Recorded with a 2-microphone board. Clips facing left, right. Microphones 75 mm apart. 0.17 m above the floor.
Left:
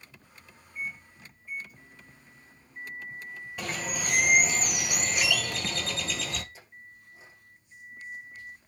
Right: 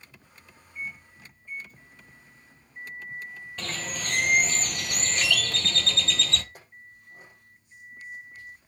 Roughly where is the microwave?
Centre.